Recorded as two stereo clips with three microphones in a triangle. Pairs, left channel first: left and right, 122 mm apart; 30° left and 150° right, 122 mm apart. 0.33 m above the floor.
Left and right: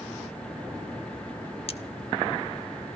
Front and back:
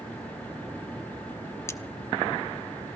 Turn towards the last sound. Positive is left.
turn(degrees=90)